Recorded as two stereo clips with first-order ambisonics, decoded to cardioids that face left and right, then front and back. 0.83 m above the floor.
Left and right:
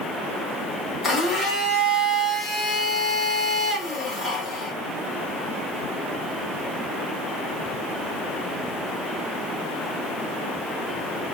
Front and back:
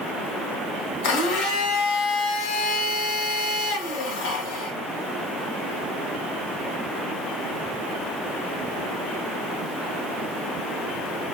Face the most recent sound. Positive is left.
turn(degrees=15)